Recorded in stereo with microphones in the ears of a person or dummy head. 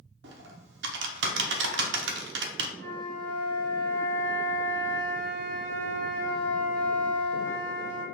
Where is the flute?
70° right (ahead or behind), 1.4 m.